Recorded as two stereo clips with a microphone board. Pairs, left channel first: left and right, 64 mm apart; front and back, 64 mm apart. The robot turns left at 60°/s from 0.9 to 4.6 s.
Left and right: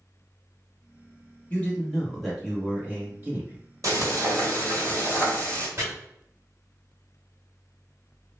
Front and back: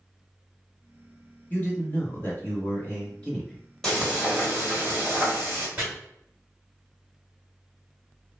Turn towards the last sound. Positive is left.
turn(degrees=-125)